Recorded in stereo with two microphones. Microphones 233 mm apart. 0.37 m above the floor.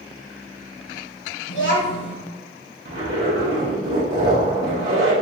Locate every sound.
1.5 s a child speaking: 55° left (ahead or behind), 1.1 m
2.9 s a zipper: 60° right (ahead or behind), 1.9 m